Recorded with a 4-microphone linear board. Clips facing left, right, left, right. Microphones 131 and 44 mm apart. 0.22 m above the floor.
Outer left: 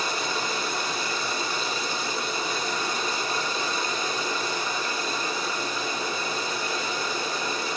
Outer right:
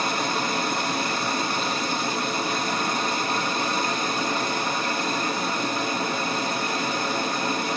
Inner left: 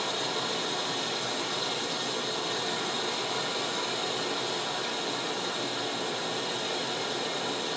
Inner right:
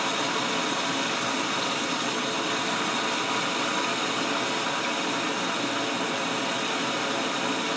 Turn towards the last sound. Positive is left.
turn(degrees=-55)  # may be behind; listen again after turning